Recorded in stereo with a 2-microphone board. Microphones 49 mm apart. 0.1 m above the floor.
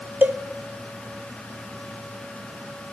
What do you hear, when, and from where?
0.2 s a cowbell: 40° right (ahead or behind), 1.1 m